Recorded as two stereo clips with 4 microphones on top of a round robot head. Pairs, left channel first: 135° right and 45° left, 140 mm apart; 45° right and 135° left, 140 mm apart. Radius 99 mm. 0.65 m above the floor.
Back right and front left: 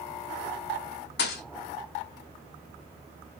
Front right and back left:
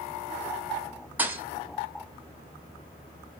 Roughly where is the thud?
Behind right.